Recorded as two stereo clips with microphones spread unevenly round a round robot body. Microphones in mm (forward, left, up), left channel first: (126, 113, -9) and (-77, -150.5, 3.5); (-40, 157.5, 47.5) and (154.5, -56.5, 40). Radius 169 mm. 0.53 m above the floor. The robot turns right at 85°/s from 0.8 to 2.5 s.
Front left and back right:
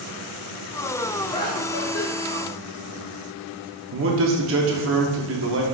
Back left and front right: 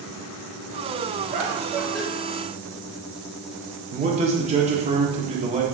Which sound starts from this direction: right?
A man speaking, at 3.9 s.